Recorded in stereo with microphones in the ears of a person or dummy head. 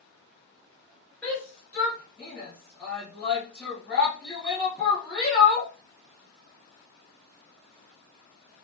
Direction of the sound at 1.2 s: 10° left (ahead or behind).